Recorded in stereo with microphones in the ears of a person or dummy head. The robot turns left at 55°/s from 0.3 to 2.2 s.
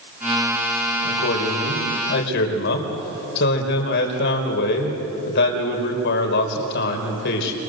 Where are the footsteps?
I don't hear footsteps.